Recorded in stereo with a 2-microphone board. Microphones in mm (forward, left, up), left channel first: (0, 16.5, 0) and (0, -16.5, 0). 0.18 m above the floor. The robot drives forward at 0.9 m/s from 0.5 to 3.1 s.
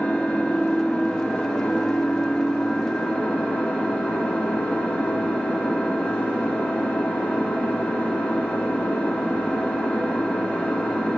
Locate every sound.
0.0 s an engine running: 50° left (ahead or behind), 4.5 m; by 11.2 s 35° left (ahead or behind), 6.5 m